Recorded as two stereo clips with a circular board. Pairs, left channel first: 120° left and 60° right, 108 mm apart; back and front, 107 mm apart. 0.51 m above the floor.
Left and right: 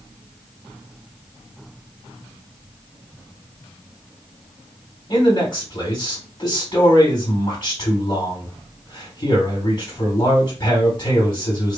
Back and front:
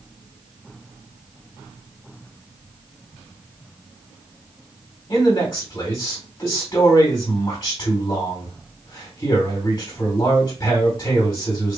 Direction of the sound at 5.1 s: 150° left.